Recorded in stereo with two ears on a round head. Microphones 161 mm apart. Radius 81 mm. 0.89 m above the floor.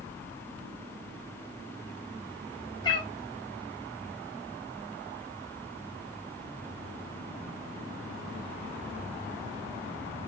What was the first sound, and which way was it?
A cat meowing, 25° left (ahead or behind).